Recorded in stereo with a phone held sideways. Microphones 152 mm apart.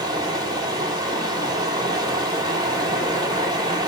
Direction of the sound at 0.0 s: 25° right (ahead or behind).